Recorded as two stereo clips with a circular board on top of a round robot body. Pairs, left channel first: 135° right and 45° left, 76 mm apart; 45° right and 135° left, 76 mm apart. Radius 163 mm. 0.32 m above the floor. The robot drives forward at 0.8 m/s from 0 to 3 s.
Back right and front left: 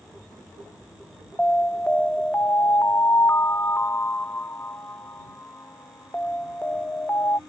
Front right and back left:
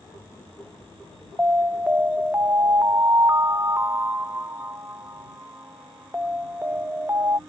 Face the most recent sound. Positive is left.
turn(degrees=175)